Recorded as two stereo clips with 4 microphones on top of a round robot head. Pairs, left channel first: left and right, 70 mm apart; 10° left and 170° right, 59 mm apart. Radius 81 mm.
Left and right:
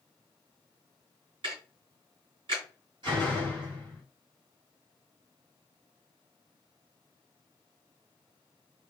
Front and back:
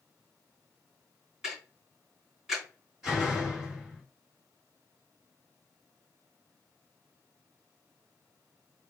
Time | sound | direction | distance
1.4 | ticking | 90° right | 2.5 m
3.0 | a door slam | 90° right | 2 m